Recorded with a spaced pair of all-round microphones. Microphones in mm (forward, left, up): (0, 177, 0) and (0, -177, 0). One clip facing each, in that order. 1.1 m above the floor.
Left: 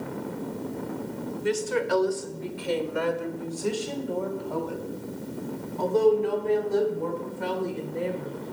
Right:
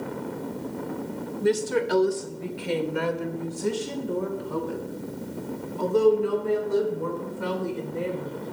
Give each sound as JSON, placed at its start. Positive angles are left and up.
{"t": 1.4, "sound": "a woman speaking", "side_deg": -55, "distance_m": 1.6}